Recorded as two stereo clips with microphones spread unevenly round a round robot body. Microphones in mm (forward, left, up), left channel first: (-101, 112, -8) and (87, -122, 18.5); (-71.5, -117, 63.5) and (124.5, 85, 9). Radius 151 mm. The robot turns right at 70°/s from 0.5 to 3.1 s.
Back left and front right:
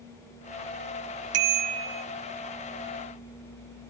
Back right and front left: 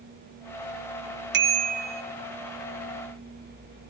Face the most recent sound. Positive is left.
turn(degrees=115)